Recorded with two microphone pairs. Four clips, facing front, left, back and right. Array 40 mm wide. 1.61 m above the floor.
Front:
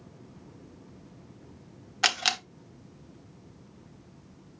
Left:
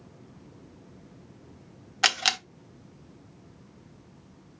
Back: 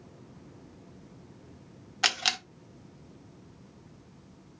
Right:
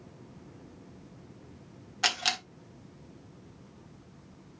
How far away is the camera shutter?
About 1.2 m.